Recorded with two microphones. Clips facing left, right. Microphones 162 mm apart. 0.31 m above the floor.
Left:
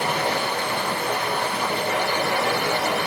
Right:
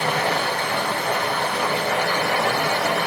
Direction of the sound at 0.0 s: 65° right (ahead or behind).